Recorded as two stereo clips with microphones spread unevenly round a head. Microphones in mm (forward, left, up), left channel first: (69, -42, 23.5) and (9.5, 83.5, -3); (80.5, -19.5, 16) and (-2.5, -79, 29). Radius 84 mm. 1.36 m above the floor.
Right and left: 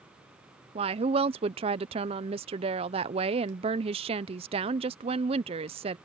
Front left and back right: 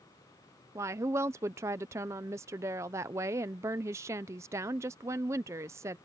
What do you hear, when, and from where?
0.8 s a woman speaking: 145° left